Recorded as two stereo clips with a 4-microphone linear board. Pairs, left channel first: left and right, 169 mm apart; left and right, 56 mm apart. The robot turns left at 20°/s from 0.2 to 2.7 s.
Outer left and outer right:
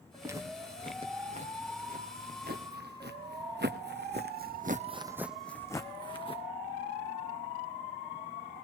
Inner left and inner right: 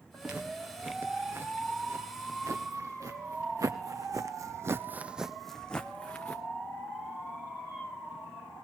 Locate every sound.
0.2 s footsteps: 15° right (ahead or behind), 3.5 m; by 6.4 s 30° left (ahead or behind), 1.2 m